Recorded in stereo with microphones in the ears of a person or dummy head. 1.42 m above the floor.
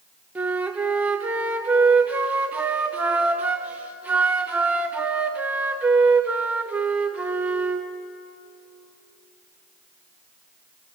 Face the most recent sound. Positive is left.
turn(degrees=-10)  # may be behind; listen again after turning